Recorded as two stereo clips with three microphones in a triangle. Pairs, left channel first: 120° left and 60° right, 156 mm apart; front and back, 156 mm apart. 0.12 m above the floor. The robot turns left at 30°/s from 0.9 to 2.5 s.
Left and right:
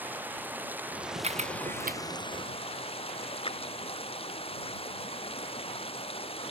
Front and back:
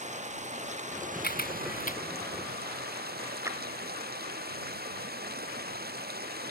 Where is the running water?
140° right; by 6.5 s 175° left.